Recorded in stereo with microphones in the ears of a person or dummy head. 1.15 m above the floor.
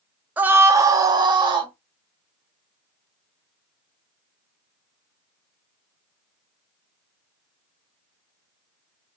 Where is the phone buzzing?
No phone buzzing in this recording.